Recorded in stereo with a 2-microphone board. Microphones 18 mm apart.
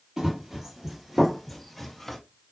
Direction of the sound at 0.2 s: 30° right (ahead or behind).